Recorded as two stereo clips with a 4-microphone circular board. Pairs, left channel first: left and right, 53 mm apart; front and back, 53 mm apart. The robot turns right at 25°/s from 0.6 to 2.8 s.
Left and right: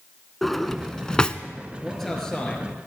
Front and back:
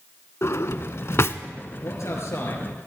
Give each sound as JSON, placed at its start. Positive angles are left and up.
{"t": 0.4, "sound": "a drawer", "azimuth_deg": 5, "distance_m": 0.6}
{"t": 1.8, "sound": "a man speaking", "azimuth_deg": 0, "distance_m": 3.5}